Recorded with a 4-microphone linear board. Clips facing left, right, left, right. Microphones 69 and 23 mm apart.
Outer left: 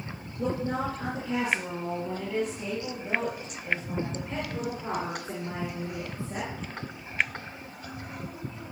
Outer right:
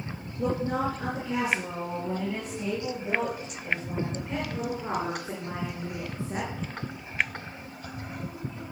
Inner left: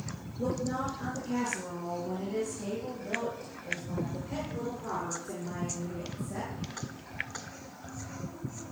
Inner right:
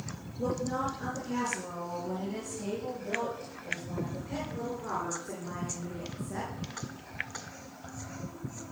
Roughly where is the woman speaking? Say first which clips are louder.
Outer right 2 dB, inner right 1 dB; centre.